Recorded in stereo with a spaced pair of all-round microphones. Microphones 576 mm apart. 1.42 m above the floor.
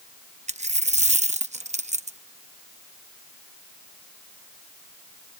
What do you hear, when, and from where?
0.5 s a dropped coin: 10° right (ahead or behind)